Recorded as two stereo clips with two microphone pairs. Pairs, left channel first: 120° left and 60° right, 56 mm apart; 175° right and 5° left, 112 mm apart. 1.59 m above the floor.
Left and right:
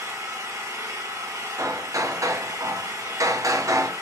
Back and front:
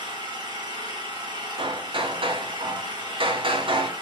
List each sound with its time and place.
0.0 s an engine running: 40° right, 1.5 m
1.6 s hammering: 30° right, 0.6 m